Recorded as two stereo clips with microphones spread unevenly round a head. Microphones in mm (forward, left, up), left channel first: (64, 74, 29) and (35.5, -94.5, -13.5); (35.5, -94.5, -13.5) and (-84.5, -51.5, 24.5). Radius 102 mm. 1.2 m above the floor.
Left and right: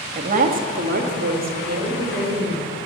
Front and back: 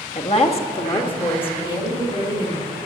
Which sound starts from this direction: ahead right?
A woman speaking, at 0.1 s.